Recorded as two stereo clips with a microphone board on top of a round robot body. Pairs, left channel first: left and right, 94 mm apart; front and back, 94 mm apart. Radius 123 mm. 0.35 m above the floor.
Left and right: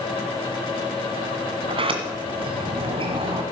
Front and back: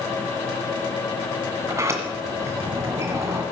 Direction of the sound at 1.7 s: 120° right.